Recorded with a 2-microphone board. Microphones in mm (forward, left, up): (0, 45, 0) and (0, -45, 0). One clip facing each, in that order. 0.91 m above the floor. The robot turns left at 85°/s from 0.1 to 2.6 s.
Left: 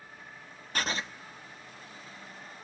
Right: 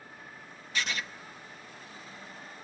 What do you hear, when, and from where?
0.8 s writing: 45° left (ahead or behind), 0.8 m; by 1.1 s 20° left (ahead or behind), 0.8 m